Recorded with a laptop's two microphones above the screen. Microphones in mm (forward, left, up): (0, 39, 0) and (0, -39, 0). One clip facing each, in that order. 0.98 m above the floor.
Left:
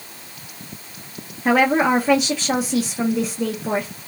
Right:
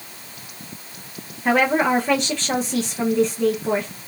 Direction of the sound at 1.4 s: 5° left (ahead or behind).